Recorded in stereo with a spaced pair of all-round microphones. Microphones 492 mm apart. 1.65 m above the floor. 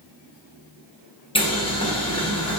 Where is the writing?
No writing in this recording.